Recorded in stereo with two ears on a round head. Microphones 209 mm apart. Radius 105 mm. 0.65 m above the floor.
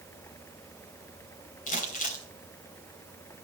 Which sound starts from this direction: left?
Crumpling, at 1.7 s.